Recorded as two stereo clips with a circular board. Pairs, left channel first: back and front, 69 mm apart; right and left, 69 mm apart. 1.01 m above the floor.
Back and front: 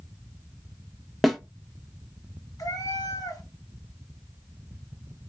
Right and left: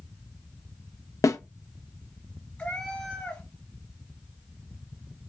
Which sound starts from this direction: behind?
A cat meowing, at 2.6 s.